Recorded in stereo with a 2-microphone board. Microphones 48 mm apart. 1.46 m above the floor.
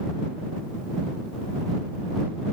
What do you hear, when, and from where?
Only background noise.